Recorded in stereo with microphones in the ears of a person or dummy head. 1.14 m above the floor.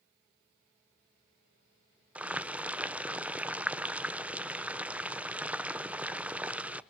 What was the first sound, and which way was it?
Boiling, 5° right (ahead or behind).